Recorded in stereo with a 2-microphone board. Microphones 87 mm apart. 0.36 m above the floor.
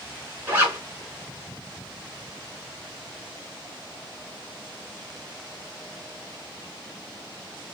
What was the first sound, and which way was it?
A zipper, 20° right (ahead or behind).